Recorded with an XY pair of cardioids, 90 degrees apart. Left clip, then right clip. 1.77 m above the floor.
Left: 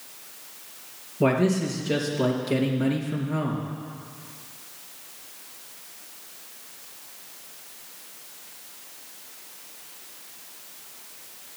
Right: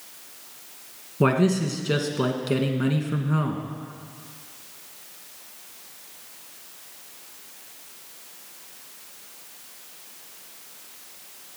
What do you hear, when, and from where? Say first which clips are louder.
1.2 s a man speaking: right 1 dB; 65° right, 2 m